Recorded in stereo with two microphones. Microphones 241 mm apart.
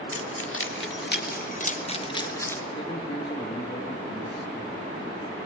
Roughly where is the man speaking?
Centre.